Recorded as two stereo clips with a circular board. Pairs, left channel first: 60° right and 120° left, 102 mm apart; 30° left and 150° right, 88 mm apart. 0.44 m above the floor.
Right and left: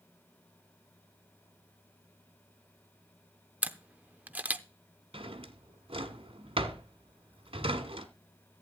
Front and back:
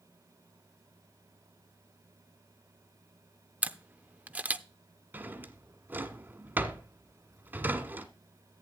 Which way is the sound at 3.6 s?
165° left.